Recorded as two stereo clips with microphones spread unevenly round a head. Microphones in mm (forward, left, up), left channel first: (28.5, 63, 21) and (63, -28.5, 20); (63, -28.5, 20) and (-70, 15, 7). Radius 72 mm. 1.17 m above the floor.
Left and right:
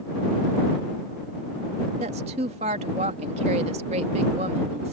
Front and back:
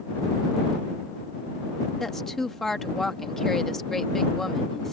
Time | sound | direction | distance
2.0 | a woman speaking | 105° right | ?